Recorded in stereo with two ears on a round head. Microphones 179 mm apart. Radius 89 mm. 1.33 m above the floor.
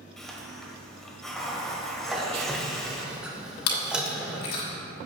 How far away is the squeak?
About 1.3 m.